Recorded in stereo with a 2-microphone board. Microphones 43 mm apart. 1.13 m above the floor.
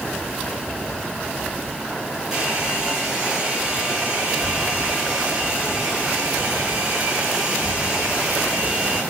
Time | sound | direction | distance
2.3 | a hair dryer | 10° right (ahead or behind) | 8.5 m